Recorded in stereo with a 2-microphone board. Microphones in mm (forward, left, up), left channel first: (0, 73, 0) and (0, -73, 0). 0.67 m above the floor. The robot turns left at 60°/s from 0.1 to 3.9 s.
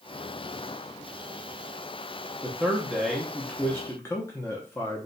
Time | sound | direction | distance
2.4 | a man speaking | 15° right (ahead or behind) | 0.6 m